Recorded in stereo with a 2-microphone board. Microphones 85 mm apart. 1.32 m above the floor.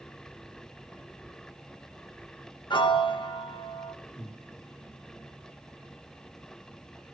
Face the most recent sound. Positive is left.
turn(degrees=10)  # may be behind; listen again after turning